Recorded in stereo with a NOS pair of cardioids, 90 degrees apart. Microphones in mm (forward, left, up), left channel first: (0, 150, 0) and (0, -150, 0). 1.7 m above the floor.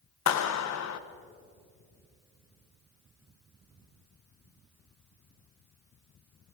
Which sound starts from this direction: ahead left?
A clap, at 0.3 s.